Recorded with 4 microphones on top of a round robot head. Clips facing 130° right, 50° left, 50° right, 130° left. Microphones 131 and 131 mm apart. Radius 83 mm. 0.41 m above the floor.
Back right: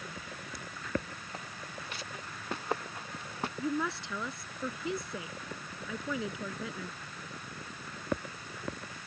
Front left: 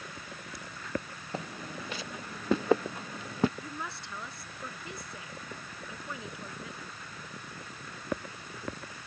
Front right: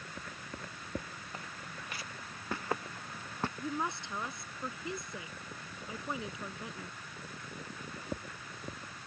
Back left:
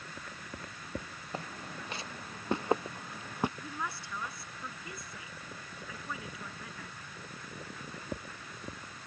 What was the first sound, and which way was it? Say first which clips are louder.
Footsteps: front left 8 dB, back left 7 dB; 70° left.